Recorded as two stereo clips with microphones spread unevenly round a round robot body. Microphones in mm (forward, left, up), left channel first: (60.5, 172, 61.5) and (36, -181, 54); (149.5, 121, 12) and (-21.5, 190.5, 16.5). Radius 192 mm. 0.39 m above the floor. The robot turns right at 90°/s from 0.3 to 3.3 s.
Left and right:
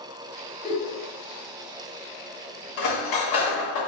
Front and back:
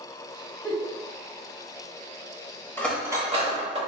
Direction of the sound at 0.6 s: 100° left.